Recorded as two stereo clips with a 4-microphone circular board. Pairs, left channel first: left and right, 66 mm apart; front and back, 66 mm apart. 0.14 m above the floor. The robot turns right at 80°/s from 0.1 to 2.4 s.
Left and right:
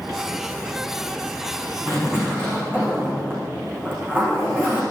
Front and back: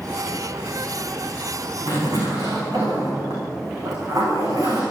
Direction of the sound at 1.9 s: 170° left.